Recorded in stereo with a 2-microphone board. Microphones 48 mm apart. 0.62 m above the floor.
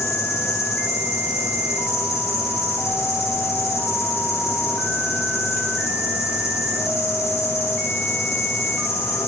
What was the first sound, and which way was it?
An insect, 70° left (ahead or behind).